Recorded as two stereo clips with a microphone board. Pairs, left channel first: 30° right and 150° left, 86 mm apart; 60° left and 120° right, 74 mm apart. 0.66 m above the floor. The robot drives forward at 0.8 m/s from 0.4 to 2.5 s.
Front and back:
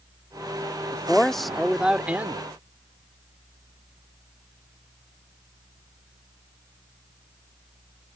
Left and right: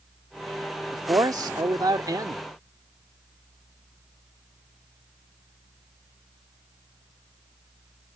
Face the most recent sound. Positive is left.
turn(degrees=-145)